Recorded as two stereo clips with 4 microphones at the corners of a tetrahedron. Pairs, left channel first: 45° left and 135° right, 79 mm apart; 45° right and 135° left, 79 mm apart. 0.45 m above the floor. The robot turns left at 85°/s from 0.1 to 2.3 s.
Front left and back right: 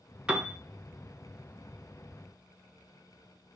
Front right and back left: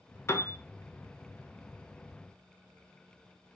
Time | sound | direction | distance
0.3 | a piano | 65° right | 0.5 m